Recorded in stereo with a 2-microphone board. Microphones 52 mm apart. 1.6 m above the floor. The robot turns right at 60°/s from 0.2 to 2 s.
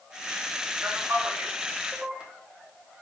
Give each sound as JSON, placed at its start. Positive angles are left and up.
{"t": 0.8, "sound": "a man speaking", "side_deg": -50, "distance_m": 0.7}